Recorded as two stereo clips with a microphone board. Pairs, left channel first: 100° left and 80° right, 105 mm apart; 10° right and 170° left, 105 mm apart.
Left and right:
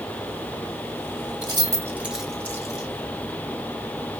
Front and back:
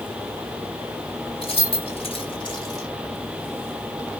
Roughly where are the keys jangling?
Ahead right.